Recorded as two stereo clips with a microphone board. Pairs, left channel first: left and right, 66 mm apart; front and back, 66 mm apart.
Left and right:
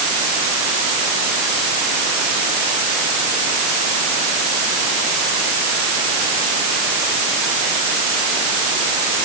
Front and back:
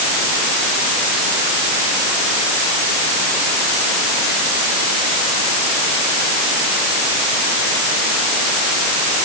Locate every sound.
Only background noise.